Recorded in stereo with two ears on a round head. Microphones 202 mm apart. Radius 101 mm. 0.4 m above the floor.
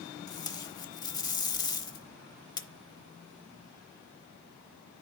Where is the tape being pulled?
20° left (ahead or behind), 0.8 m.